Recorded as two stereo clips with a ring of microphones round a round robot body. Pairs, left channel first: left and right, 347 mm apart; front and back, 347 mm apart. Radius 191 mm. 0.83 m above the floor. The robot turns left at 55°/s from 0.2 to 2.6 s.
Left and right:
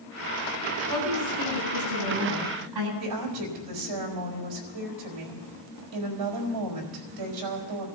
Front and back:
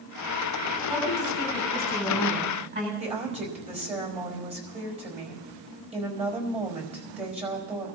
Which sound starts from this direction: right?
A woman speaking, at 3.0 s.